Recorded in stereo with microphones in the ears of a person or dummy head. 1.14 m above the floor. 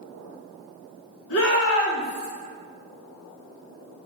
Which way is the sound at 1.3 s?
55° left (ahead or behind).